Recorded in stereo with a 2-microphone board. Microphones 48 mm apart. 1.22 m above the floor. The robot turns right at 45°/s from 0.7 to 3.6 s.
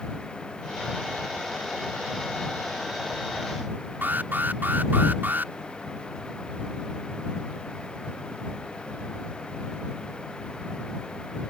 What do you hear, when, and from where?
4.0 s an alarm: 45° right (ahead or behind)